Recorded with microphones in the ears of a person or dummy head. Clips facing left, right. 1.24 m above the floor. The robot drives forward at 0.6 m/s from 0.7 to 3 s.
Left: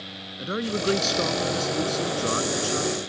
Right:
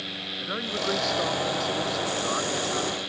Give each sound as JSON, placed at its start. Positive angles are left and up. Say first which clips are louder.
{"t": 0.4, "sound": "a man speaking", "louder": "left 5 dB", "side_deg": 45}